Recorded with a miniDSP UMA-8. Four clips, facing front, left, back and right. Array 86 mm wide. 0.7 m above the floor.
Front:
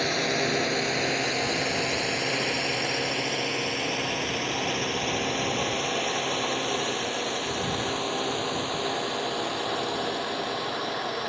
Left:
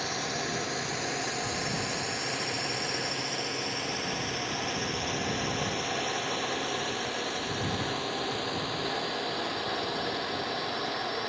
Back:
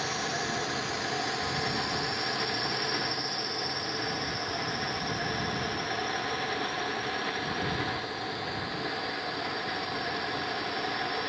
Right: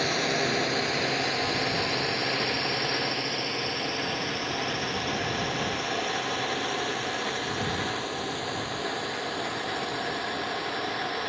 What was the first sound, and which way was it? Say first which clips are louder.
A drone: right 6 dB, front 6 dB; 30° right.